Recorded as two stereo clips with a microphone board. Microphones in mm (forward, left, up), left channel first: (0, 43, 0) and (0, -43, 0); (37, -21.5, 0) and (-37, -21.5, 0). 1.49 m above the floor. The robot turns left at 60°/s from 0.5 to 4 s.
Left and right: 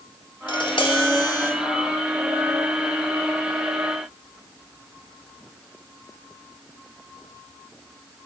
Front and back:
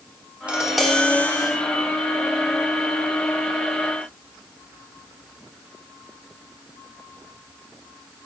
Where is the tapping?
105° left, 3 m; by 1.5 s 45° left, 3 m.